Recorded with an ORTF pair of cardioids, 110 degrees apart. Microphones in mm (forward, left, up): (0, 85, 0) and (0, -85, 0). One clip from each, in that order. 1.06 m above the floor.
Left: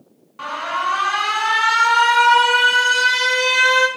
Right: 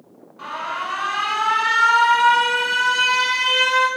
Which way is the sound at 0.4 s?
40° left.